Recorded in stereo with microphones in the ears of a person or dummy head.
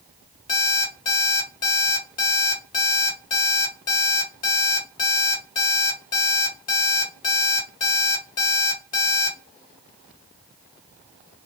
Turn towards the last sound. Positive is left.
turn(degrees=30)  # may be behind; listen again after turning